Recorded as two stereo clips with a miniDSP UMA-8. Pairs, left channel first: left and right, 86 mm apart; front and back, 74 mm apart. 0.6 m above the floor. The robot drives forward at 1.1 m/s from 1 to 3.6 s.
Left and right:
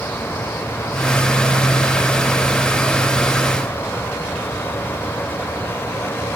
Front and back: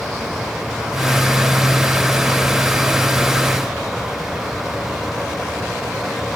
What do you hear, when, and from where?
Only background noise.